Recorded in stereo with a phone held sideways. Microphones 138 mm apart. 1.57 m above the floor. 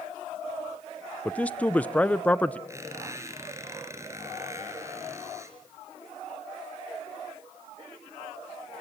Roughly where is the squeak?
Right.